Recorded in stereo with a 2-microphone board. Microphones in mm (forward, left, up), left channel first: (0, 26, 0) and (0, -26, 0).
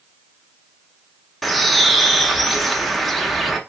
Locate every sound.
1.4 s a bird: centre (ahead or behind), 0.6 m